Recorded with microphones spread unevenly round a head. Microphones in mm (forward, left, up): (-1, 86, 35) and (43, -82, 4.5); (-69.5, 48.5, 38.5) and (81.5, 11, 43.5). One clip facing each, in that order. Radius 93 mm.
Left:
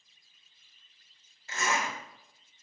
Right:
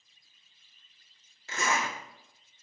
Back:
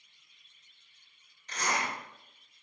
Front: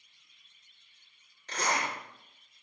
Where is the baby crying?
I don't hear a baby crying.